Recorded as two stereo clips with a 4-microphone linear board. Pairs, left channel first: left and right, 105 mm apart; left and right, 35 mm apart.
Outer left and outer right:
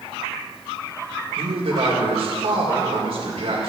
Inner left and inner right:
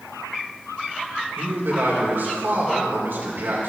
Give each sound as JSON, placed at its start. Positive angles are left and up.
{"t": 1.4, "sound": "a man speaking", "side_deg": -80, "distance_m": 3.0}